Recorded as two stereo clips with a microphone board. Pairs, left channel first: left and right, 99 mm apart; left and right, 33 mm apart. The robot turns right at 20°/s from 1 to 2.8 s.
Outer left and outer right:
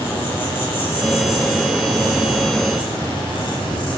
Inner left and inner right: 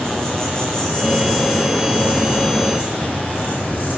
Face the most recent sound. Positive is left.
turn(degrees=60)